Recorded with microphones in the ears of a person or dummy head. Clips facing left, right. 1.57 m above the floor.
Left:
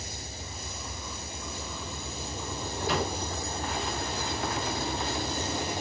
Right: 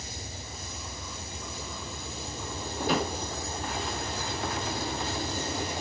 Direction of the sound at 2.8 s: 50° right (ahead or behind).